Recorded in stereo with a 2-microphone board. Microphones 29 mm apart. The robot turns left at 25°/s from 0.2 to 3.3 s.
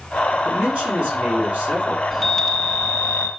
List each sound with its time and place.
0.5 s a man speaking: 70° right, 5 m; by 2.0 s 110° right, 5 m
2.1 s a chime: 5° left (ahead or behind), 0.9 m; by 3.3 s 20° left (ahead or behind), 0.9 m